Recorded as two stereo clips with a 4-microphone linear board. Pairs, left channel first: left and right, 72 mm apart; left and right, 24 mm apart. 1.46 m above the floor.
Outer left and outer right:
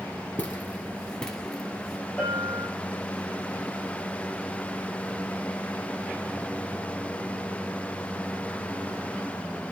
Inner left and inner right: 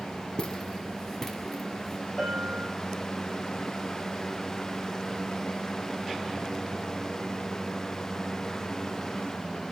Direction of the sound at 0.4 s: 30° left (ahead or behind).